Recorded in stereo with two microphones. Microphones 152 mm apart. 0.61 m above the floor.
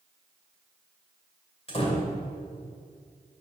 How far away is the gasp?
No gasp in this recording.